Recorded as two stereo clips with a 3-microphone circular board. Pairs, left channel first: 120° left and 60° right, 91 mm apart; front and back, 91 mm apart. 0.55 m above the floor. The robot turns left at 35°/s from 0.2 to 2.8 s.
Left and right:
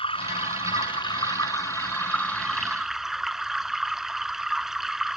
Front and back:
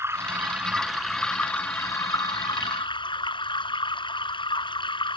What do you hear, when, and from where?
0.0 s running water: 120° left; by 5.2 s 25° left